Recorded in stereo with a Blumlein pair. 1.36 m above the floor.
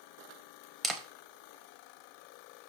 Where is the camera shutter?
10° right, 0.7 m.